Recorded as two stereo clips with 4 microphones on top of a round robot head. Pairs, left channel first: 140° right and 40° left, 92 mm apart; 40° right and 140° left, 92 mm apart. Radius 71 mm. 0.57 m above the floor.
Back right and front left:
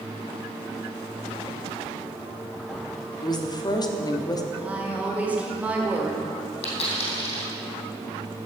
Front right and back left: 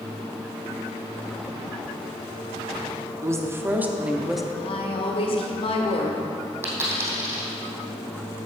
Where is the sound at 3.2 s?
170° right, 1.3 m; by 4.4 s 135° right, 1.0 m.